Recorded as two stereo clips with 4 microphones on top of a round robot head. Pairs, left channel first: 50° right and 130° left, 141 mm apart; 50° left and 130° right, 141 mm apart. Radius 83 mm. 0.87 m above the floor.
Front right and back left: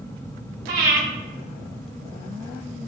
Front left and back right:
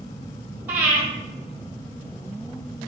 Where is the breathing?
155° left, 1.6 m.